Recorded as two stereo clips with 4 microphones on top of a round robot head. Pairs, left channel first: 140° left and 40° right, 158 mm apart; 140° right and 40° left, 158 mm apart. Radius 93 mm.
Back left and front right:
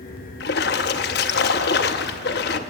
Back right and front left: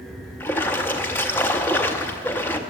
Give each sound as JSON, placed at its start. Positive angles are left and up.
{"t": 0.4, "sound": "a splash", "azimuth_deg": 145, "distance_m": 0.7}